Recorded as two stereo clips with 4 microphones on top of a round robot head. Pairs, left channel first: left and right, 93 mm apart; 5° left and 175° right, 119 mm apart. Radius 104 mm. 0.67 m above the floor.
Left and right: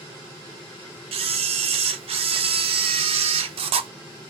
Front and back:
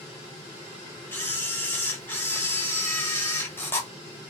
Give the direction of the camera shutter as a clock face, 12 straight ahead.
2 o'clock.